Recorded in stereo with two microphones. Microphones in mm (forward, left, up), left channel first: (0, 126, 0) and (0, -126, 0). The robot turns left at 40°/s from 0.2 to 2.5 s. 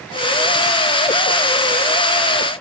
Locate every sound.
Only background noise.